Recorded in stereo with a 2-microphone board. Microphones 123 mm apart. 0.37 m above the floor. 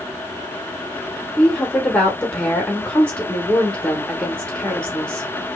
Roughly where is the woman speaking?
Centre.